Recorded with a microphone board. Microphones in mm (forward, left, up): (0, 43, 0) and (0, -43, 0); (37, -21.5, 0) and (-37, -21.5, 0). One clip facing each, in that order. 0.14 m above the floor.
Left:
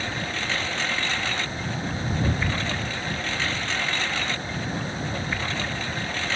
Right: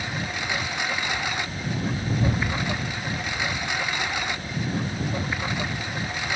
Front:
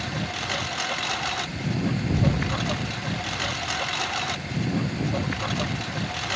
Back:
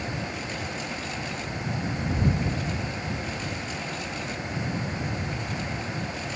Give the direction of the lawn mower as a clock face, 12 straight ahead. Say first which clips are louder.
Even, front 2 dB; 12 o'clock.